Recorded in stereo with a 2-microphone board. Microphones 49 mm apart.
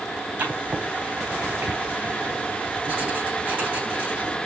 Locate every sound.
0.4 s writing: 25° right (ahead or behind), 3.5 m